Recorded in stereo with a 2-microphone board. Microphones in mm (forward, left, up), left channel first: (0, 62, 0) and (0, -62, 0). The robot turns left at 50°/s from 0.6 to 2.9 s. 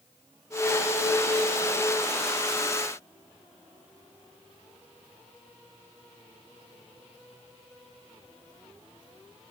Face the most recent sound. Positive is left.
No sound to turn to.